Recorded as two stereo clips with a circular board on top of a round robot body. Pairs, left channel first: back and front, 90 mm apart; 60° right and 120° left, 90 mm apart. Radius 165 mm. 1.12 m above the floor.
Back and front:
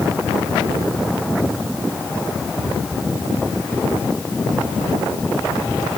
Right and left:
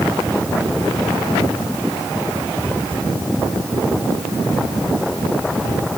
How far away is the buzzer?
I don't hear a buzzer.